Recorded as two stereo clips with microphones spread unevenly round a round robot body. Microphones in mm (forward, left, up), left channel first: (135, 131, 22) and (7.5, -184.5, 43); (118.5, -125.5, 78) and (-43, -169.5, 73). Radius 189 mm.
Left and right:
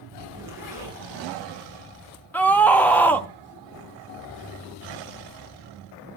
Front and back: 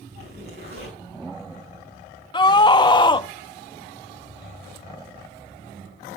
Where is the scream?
5° right, 0.6 m.